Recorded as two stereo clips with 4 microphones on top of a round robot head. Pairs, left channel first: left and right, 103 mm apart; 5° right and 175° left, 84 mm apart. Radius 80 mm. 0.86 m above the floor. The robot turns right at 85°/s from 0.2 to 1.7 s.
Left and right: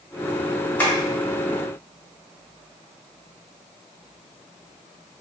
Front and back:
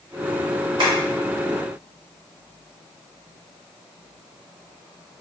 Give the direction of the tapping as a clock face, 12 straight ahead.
7 o'clock.